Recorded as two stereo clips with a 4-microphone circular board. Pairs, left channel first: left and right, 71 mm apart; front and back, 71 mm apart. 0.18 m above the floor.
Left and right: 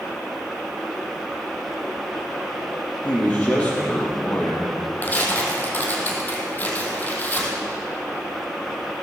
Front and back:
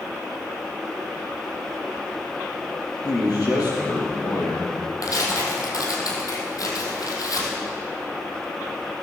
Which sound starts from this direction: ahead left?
Tearing paper, at 5.0 s.